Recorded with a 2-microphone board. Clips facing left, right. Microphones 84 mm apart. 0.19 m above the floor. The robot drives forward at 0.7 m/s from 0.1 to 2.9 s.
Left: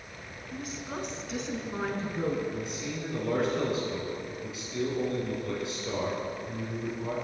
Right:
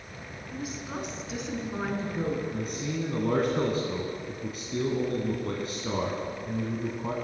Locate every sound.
0.5 s a woman speaking: 5° right (ahead or behind), 1.1 m; by 2.4 s centre (ahead or behind), 2 m
2.5 s a man speaking: 45° right (ahead or behind), 1.4 m